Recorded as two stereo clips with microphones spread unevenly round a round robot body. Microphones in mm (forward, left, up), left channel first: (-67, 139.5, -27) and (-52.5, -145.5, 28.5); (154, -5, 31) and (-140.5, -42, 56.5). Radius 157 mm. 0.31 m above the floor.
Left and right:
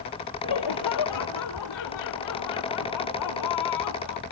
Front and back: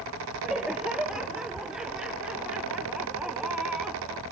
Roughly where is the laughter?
Left.